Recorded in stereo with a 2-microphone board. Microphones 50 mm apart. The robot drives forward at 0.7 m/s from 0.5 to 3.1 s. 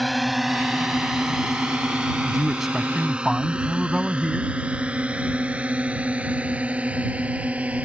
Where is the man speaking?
5° right (ahead or behind).